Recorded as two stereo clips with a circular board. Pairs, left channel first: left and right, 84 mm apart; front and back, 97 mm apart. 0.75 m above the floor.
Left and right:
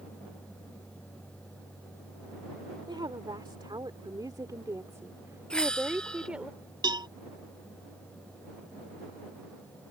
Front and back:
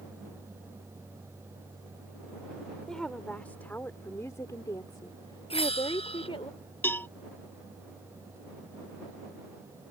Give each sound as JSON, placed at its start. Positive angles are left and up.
{"t": 2.9, "sound": "a woman speaking", "azimuth_deg": -85}
{"t": 5.5, "sound": "a bell", "azimuth_deg": 10}
{"t": 6.8, "sound": "a cowbell", "azimuth_deg": -70}